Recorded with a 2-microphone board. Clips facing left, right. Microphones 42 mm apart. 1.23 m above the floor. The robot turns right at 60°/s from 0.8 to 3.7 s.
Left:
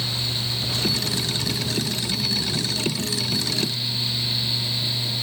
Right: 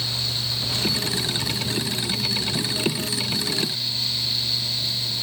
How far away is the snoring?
I don't hear snoring.